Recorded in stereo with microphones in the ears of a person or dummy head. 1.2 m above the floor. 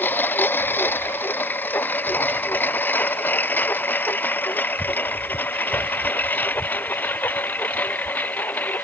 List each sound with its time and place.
0.0 s a lawn mower: 10° left (ahead or behind); by 8.8 s 5° left (ahead or behind)